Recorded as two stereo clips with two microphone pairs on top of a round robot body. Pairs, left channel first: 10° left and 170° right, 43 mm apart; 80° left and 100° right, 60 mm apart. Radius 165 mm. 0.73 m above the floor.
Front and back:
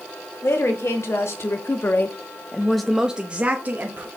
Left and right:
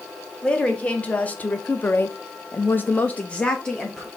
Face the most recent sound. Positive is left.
turn(degrees=160)